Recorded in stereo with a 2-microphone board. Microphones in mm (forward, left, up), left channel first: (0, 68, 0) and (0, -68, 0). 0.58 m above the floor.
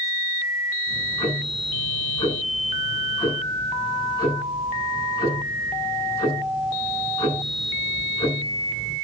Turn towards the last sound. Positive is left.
turn(degrees=35)  # may be behind; listen again after turning